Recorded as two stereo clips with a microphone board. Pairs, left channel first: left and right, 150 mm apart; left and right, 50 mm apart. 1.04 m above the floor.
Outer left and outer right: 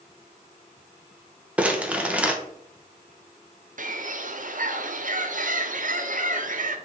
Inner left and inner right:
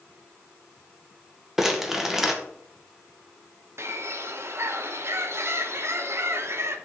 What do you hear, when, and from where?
1.6 s crumpling: 10° right (ahead or behind), 0.8 m
3.8 s a bird: 60° right (ahead or behind), 0.6 m